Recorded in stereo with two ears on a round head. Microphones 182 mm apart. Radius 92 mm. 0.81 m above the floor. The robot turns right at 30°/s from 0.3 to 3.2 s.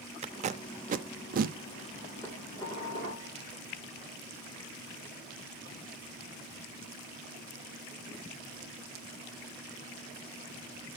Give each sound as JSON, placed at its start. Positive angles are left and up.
{"t": 0.2, "sound": "tape being pulled", "side_deg": -30, "distance_m": 0.5}
{"t": 2.2, "sound": "dishes clattering", "side_deg": 5, "distance_m": 2.0}